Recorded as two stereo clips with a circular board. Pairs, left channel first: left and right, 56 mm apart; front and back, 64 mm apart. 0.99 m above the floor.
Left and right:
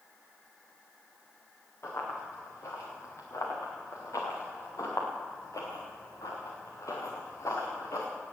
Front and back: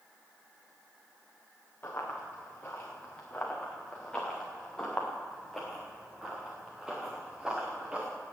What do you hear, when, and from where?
1.8 s running footsteps: 60° left, 5 m; by 8.1 s 105° left, 4.5 m